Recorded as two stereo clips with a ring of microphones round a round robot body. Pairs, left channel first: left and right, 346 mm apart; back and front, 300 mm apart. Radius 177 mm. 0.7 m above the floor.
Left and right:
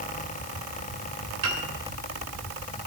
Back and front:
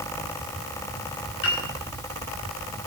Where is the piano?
130° right, 2.5 m.